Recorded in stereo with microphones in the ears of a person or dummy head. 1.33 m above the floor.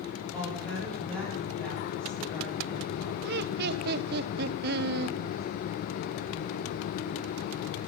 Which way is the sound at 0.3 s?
5° left (ahead or behind).